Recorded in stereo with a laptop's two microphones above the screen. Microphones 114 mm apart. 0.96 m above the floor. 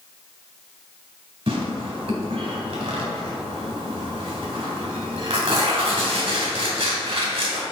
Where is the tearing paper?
60° right (ahead or behind), 1.9 m.